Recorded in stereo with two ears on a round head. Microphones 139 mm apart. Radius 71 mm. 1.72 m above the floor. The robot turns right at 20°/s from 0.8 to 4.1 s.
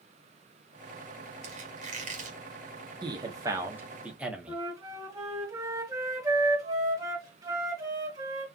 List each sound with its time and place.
1.4 s a squeak: 50° right (ahead or behind), 2 m
3.0 s a man speaking: 30° right (ahead or behind), 1.2 m; by 4.6 s 5° right (ahead or behind), 1.2 m
4.5 s a flute: 25° right (ahead or behind), 1.7 m